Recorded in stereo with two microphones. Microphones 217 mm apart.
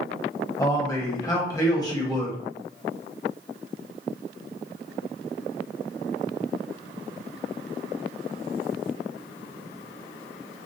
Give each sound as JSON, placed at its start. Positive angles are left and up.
{"t": 0.6, "sound": "a man speaking", "side_deg": 15, "distance_m": 0.9}